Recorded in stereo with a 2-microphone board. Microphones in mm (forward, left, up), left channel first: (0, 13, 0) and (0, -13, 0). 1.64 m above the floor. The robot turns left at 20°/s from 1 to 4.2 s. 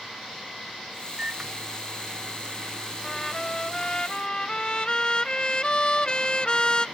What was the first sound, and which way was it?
A microwave, 125° right.